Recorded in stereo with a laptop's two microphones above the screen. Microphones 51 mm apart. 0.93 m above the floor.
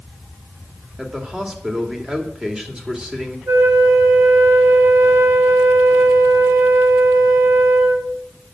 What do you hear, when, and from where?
1.0 s a man speaking: 20° right (ahead or behind), 2.5 m
3.5 s a flute: 65° right (ahead or behind), 3 m